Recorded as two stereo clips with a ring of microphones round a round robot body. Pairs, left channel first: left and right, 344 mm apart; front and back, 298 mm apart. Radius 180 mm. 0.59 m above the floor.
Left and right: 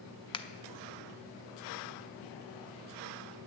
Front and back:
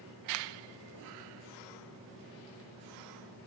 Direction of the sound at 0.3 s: 165° left.